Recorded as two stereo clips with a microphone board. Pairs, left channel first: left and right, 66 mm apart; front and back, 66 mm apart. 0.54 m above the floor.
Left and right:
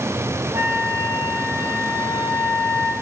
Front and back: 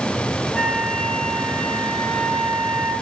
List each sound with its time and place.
0.5 s a flute: 75° right, 0.9 m